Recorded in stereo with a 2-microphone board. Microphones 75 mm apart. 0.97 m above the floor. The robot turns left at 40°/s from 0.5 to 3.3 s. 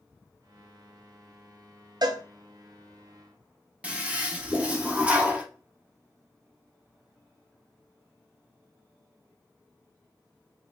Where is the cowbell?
65° right (ahead or behind), 0.5 m; by 2.2 s 55° right (ahead or behind), 0.5 m.